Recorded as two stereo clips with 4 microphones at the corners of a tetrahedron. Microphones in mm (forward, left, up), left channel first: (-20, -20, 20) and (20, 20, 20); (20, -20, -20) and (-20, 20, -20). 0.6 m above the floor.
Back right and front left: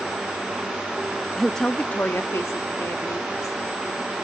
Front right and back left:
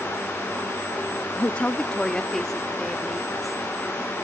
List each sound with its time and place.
1.4 s a woman speaking: 50° right; by 3.6 s 140° right